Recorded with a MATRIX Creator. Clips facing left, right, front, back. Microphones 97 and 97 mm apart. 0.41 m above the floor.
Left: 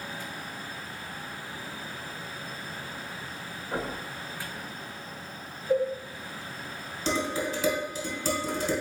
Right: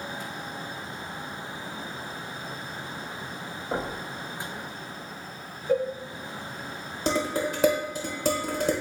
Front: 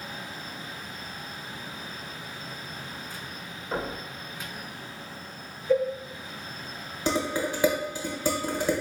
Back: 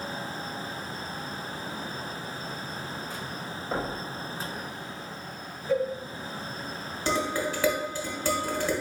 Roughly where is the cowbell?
Right.